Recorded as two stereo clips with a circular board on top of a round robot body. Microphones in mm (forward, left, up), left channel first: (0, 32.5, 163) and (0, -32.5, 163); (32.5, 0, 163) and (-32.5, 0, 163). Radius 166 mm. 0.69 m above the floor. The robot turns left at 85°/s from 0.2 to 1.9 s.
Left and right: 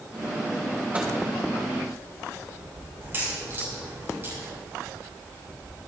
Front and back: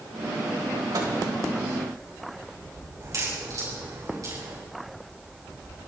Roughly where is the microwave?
Behind.